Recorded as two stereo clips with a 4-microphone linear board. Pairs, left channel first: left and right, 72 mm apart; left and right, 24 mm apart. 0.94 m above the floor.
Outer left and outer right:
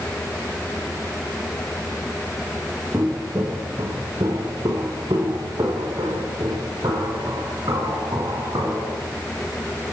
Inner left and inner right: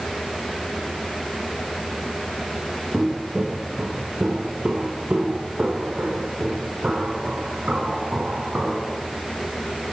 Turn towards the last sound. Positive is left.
turn(degrees=-85)